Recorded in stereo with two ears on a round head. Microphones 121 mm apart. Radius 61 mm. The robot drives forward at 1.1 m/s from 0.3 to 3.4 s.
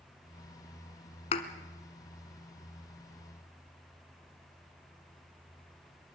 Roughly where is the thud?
Left.